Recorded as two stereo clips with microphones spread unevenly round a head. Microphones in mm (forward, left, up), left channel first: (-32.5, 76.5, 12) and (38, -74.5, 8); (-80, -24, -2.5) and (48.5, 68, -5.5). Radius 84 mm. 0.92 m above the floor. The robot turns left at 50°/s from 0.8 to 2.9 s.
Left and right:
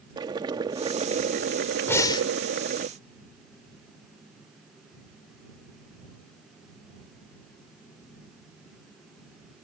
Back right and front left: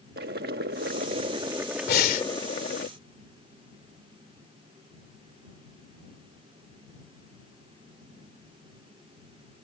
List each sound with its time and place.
0.2 s boiling: straight ahead; by 2.9 s 105° right
1.9 s breathing: 165° right; by 2.3 s 175° left